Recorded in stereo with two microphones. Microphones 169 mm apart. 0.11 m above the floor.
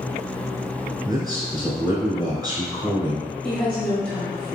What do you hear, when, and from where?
1.1 s a man speaking: 25° right (ahead or behind), 1.2 m
3.4 s a woman speaking: 5° left (ahead or behind), 1.7 m